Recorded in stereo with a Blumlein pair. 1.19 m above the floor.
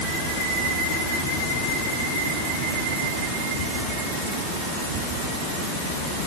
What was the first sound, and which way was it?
Only background noise.